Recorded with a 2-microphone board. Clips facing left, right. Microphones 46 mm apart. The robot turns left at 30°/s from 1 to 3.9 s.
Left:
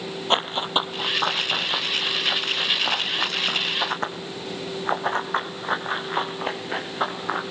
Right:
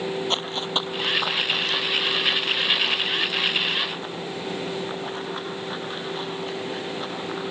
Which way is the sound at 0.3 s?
30° left (ahead or behind).